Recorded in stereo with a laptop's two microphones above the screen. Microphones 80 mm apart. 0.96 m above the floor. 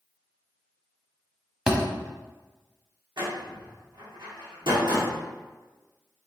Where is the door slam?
75° right (ahead or behind), 1.5 m.